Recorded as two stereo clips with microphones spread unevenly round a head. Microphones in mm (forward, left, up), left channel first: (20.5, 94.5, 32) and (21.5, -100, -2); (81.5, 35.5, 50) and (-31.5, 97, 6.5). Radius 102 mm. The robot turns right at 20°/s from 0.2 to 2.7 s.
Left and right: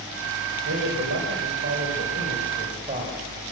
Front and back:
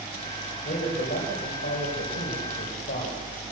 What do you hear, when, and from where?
0.7 s a man speaking: 70° right, 4.5 m; by 3.4 s 30° right, 4.5 m